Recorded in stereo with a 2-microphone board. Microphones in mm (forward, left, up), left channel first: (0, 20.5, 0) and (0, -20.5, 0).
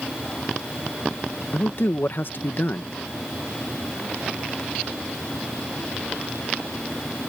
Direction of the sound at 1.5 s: 55° left (ahead or behind).